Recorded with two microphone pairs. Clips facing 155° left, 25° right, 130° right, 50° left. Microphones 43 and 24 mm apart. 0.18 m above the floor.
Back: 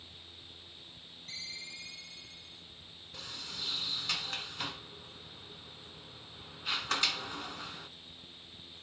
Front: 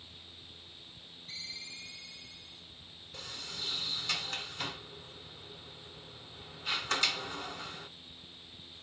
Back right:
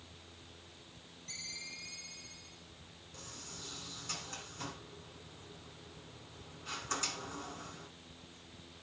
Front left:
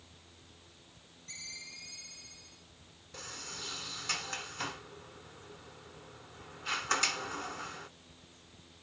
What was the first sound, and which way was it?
A ringtone, 150° left.